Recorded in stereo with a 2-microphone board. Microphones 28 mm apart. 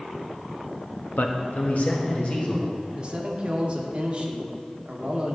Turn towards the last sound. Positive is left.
turn(degrees=-35)  # may be behind; listen again after turning